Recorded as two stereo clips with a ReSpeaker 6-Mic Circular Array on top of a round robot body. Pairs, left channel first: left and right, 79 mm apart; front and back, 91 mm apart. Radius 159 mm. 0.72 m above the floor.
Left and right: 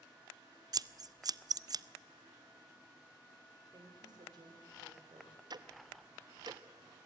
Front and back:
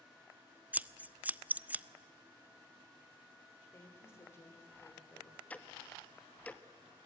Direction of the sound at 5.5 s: 75° right.